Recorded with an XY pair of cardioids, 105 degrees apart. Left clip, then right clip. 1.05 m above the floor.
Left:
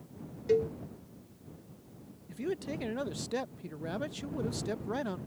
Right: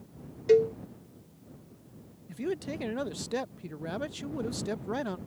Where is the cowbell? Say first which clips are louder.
Right 6 dB; 50° right.